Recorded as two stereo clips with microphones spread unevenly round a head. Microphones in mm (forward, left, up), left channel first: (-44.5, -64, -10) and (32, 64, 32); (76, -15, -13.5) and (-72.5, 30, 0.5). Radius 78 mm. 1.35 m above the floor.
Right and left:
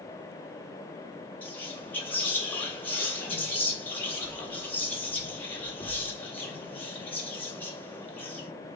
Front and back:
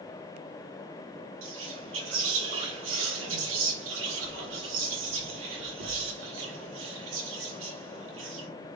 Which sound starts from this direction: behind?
Whispering, at 1.4 s.